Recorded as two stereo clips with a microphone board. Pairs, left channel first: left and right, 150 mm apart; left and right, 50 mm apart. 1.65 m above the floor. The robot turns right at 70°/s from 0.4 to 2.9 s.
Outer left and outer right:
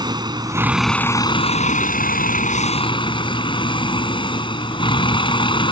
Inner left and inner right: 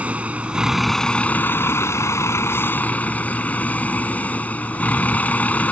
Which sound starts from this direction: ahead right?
A vehicle, at 0.0 s.